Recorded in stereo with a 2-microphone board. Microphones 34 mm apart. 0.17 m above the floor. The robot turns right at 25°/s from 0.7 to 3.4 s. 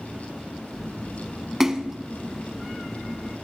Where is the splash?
15° right (ahead or behind), 0.9 m.